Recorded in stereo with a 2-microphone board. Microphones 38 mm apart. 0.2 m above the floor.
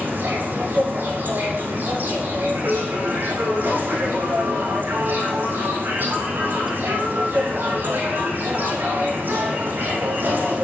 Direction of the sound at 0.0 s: 60° right (ahead or behind).